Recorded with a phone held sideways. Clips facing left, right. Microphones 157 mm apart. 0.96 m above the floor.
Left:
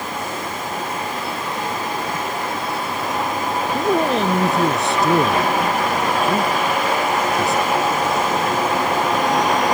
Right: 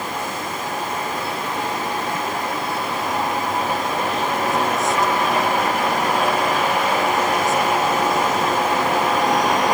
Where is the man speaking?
75° left (ahead or behind).